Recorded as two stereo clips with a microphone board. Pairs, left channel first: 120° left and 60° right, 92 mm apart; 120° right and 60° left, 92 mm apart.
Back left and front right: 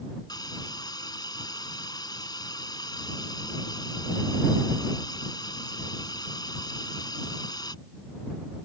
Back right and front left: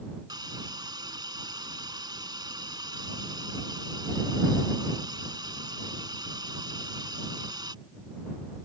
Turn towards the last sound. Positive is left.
turn(degrees=90)